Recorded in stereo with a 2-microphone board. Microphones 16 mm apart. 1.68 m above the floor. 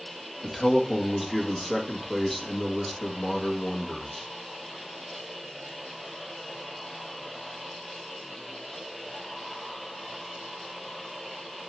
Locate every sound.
0.4 s a man speaking: centre (ahead or behind), 1.9 m